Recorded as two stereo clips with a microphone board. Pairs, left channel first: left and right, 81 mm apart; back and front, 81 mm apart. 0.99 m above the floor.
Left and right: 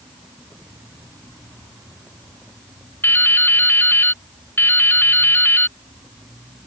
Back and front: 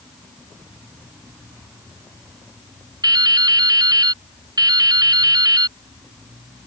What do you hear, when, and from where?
3.0 s dripping: 30° left